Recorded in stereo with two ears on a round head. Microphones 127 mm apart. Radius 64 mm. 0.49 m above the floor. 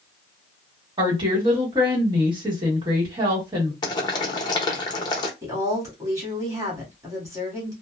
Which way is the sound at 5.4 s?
25° right (ahead or behind).